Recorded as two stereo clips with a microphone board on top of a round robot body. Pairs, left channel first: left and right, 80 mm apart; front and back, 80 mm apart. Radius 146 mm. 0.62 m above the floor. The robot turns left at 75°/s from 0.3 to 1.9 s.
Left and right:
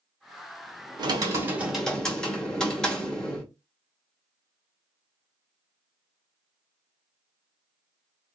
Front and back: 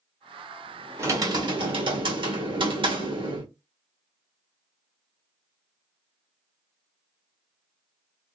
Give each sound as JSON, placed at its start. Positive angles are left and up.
{"t": 1.0, "sound": "typing on a keyboard", "azimuth_deg": -120, "distance_m": 1.2}